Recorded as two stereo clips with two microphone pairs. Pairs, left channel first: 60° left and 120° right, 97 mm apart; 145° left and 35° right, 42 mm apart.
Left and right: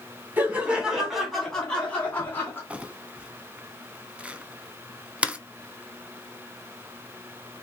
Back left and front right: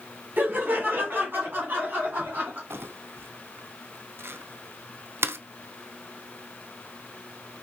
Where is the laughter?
55° right, 1.8 m; by 2.6 s 5° right, 2.5 m.